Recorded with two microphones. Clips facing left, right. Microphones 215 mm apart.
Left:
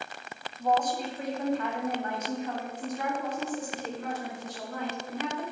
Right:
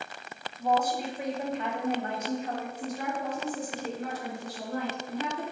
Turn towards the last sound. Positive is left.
turn(degrees=-40)  # may be behind; listen again after turning